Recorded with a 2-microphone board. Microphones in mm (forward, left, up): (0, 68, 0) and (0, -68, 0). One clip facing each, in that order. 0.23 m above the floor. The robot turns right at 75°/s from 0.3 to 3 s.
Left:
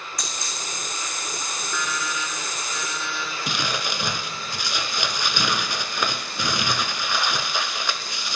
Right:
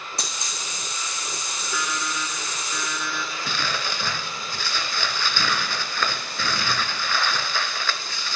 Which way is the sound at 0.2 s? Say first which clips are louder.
Left 1 dB; 30° right (ahead or behind).